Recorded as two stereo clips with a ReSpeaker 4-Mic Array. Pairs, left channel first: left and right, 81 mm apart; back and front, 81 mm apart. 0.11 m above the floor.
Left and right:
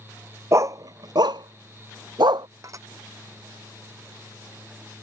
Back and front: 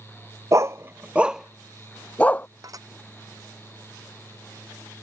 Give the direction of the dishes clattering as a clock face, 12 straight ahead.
1 o'clock.